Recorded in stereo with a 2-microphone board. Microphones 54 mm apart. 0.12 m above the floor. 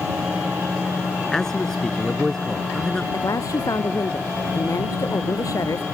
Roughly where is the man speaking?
Centre.